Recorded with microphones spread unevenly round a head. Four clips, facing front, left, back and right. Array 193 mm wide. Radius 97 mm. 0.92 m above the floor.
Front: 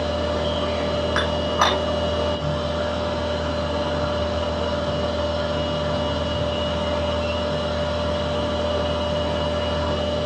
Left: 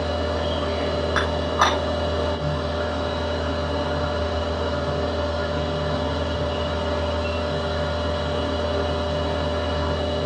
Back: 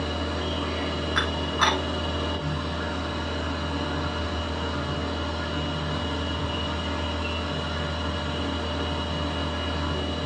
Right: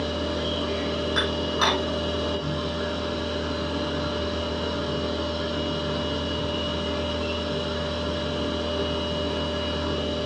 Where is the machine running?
40° left, 4 m.